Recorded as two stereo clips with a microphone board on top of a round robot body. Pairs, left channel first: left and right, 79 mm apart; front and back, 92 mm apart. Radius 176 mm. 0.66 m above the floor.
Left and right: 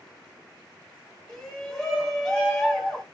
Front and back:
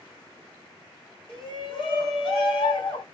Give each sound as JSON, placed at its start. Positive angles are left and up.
{"t": 1.3, "sound": "a shout", "azimuth_deg": 10, "distance_m": 1.9}